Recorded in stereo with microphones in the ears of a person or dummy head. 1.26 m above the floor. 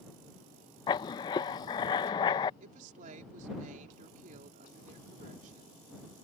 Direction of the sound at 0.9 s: 25° left (ahead or behind).